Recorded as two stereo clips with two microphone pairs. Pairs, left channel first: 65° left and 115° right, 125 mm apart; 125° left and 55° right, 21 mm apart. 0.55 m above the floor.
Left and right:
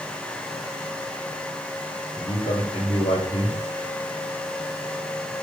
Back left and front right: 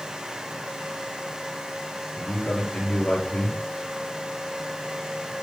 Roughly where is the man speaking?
Left.